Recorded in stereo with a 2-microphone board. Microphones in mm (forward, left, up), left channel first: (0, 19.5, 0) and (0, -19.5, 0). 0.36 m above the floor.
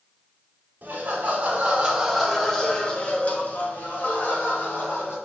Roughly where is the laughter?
Right.